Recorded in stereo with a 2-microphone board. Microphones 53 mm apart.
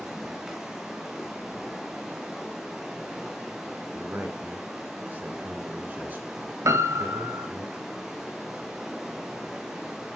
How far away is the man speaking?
About 2 m.